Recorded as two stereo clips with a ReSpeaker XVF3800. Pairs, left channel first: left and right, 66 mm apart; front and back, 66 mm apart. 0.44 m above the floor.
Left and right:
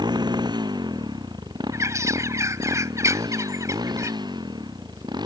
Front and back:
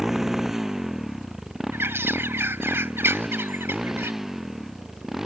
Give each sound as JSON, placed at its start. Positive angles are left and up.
{"t": 0.0, "sound": "a motorcycle", "azimuth_deg": -95}
{"t": 1.7, "sound": "a bird", "azimuth_deg": -130}